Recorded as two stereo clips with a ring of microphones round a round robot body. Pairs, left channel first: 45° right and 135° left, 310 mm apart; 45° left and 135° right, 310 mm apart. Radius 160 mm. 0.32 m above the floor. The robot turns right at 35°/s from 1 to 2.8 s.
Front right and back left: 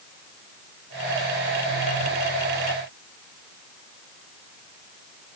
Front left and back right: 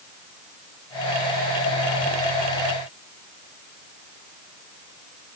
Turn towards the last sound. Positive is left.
No sound to turn to.